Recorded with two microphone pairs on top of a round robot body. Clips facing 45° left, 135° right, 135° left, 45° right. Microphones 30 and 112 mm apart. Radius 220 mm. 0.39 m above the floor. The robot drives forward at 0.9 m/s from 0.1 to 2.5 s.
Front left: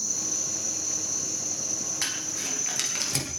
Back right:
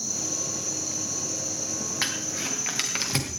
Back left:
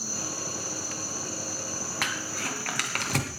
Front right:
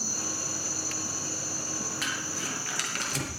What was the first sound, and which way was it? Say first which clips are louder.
An insect: even, back left 1 dB; 95° right.